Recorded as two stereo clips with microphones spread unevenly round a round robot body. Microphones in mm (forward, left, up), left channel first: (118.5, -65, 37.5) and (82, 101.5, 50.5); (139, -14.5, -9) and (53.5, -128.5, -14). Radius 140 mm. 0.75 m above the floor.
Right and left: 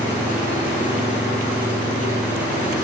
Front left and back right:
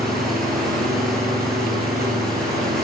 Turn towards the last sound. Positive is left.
turn(degrees=-175)